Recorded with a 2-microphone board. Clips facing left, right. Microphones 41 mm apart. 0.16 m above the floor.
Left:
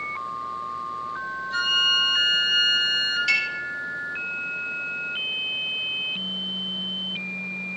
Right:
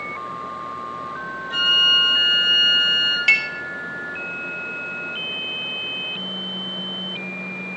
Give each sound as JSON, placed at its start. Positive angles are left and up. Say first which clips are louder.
{"t": 1.5, "sound": "a flute", "louder": "right 5 dB", "side_deg": -70, "distance_m": 4.5}
{"t": 3.3, "sound": "dishes clattering", "louder": "right 6 dB", "side_deg": -50, "distance_m": 2.0}